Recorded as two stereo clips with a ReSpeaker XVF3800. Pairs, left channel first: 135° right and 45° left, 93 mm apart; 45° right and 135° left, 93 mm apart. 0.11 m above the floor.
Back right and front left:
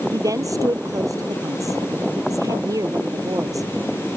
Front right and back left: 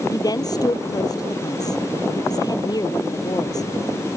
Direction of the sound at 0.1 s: Straight ahead.